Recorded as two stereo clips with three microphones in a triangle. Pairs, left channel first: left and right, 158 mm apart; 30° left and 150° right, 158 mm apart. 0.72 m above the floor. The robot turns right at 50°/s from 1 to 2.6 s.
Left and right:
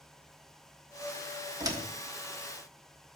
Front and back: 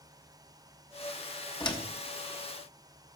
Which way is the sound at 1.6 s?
30° right.